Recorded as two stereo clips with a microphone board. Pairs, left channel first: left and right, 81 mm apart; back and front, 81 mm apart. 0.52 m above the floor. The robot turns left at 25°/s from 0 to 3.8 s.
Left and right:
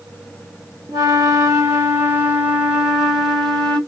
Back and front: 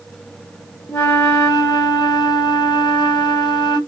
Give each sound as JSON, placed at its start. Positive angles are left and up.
{"t": 0.9, "sound": "a flute", "azimuth_deg": -120, "distance_m": 1.1}